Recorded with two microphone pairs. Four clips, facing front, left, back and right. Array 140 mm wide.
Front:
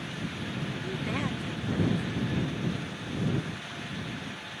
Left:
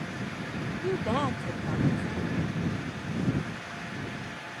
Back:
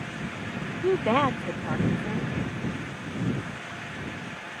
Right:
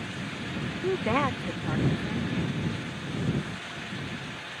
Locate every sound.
0.8 s a woman speaking: straight behind